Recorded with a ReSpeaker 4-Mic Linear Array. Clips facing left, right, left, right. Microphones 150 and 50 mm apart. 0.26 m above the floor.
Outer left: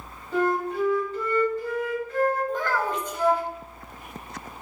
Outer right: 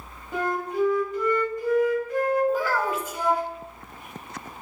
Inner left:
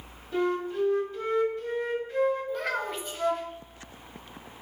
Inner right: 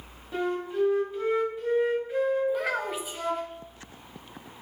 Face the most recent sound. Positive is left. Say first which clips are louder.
# outer right 2 dB, inner right 2 dB
turn(degrees=-5)  # may be behind; listen again after turning